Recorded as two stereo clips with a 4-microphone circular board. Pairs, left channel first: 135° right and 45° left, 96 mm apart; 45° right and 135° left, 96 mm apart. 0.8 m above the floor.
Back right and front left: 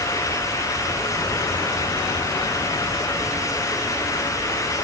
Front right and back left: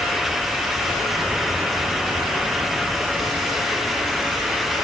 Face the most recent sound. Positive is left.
No sound to turn to.